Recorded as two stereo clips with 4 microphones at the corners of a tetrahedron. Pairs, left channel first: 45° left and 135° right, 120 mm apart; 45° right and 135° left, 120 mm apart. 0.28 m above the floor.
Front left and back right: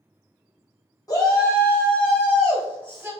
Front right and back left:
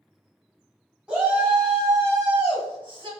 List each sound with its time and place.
1.1 s a shout: 60° left, 1.3 m; by 3.1 s 150° left, 1.5 m